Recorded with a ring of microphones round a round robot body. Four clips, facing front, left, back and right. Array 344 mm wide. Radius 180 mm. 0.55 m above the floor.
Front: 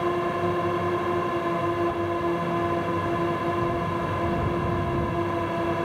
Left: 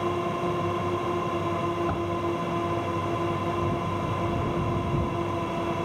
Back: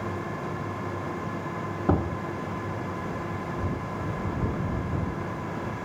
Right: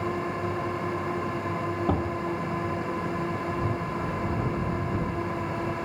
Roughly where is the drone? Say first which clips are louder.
Left 2 dB, front 8 dB; ahead.